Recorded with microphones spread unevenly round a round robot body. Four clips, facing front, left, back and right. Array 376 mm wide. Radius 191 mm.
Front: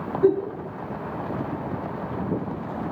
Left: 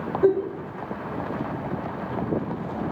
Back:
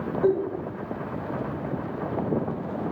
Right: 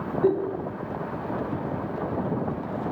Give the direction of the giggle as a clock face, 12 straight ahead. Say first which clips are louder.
Left 3 dB, front 3 dB; 10 o'clock.